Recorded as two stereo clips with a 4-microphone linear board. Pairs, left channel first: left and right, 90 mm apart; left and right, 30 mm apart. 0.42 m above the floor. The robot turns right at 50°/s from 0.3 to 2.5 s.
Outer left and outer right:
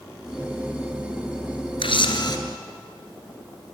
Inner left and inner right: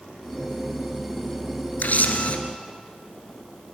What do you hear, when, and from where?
1.8 s a camera shutter: 75° left (ahead or behind), 2 m; by 2.4 s 50° left (ahead or behind), 2 m